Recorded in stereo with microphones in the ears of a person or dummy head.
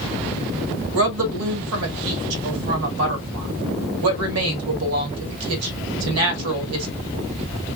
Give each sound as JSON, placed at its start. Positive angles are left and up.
{"t": 0.9, "sound": "a woman speaking", "side_deg": -75, "distance_m": 1.5}